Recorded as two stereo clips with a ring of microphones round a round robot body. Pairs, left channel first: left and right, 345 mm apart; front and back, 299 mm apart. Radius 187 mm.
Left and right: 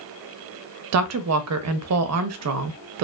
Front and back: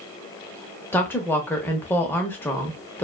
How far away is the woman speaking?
About 0.5 m.